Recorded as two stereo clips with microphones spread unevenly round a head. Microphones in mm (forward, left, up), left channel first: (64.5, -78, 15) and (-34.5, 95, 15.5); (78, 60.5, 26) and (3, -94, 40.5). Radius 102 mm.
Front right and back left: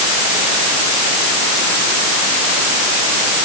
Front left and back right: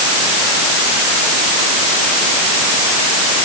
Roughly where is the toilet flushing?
No toilet flushing in this recording.